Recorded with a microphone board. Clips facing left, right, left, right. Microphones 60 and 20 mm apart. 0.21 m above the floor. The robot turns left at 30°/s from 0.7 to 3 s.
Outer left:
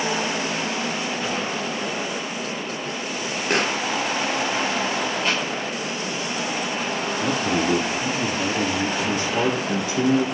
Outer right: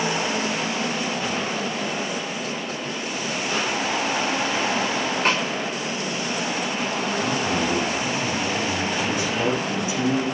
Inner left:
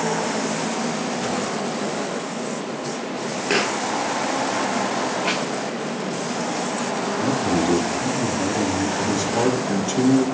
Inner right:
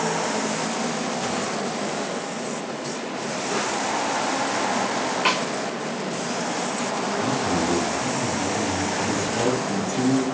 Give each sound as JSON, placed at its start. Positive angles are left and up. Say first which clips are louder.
{"t": 3.5, "sound": "a pop", "louder": "outer left 4 dB, inner left 5 dB", "side_deg": 85, "distance_m": 0.7}
{"t": 5.2, "sound": "a snare drum", "louder": "outer right 4 dB, inner right 4 dB", "side_deg": -65, "distance_m": 5.5}
{"t": 7.2, "sound": "a man speaking", "louder": "outer left 3 dB, inner left 4 dB", "side_deg": 70, "distance_m": 3.5}
{"t": 9.0, "sound": "a man speaking", "louder": "outer left 1 dB, inner left 3 dB", "side_deg": 65, "distance_m": 3.5}